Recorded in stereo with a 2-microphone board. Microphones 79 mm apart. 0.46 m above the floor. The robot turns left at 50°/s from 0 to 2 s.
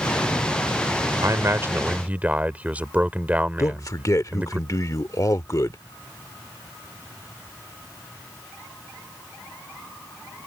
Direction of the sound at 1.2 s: 115° right.